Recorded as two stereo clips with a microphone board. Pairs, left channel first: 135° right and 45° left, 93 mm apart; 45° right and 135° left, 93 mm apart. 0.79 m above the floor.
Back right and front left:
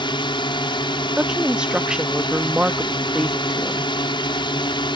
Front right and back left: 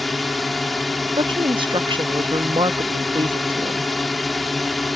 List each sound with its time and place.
0.0 s a drone: 135° right
1.2 s a woman speaking: 125° left